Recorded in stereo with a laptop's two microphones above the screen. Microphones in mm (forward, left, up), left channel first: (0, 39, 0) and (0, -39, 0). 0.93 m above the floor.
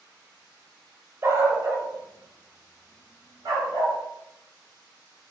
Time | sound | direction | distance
1.2 | a dog barking | 30° right (ahead or behind) | 0.7 m